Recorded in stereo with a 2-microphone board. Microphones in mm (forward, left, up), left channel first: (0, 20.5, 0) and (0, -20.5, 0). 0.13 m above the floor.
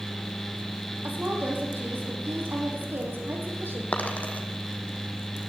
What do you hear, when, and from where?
1.0 s a woman speaking: 50° right (ahead or behind), 5 m; by 3.8 s 65° right (ahead or behind), 6 m
3.9 s a dropped coin: 35° left (ahead or behind), 2.5 m